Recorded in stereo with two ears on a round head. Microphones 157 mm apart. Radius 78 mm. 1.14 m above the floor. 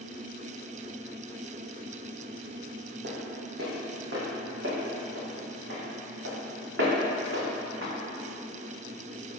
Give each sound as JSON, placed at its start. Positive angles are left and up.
{"t": 3.0, "sound": "footsteps", "side_deg": -65, "distance_m": 3.0}